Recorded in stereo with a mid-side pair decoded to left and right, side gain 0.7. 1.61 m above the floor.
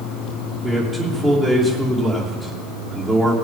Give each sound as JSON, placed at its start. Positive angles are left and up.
{"t": 0.6, "sound": "a man speaking", "azimuth_deg": -20, "distance_m": 2.5}